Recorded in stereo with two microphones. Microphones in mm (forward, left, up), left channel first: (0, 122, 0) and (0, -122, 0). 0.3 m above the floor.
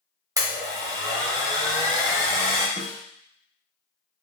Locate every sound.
0.4 s a blender: 15° right (ahead or behind), 1.1 m
2.8 s a snare drum: 45° right (ahead or behind), 1.2 m